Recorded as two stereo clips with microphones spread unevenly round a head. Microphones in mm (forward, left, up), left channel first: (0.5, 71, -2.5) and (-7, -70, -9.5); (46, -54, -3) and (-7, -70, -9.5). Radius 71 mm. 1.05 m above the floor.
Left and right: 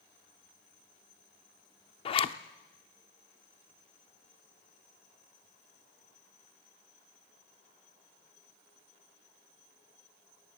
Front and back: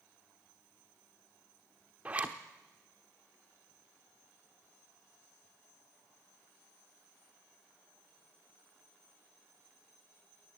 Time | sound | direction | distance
2.0 | a zipper | 125° left | 0.8 m